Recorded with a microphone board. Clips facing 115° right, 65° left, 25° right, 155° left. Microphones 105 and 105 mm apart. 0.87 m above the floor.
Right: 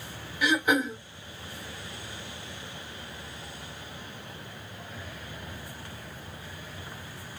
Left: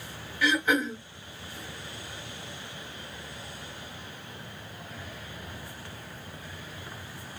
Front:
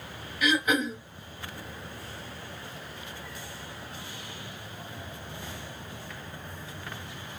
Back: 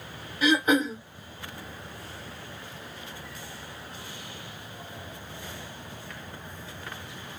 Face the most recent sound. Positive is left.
turn(degrees=-170)